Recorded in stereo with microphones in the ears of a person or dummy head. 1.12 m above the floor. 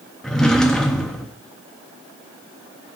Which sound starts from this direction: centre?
A drawer, at 0.2 s.